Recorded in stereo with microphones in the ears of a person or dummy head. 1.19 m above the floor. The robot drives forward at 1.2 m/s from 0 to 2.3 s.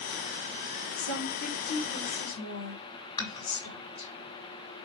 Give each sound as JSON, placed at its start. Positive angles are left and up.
{"t": 1.0, "sound": "a woman speaking", "side_deg": 75, "distance_m": 5.0}
{"t": 3.2, "sound": "dishes clattering", "side_deg": 25, "distance_m": 6.0}